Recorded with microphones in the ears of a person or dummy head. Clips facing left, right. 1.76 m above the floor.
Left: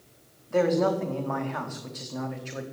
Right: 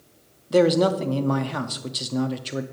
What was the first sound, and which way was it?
A man speaking, 50° right (ahead or behind).